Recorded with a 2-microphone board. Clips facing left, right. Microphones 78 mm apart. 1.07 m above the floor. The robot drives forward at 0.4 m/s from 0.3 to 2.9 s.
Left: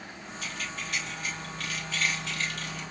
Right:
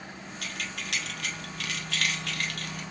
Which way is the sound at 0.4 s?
60° right (ahead or behind).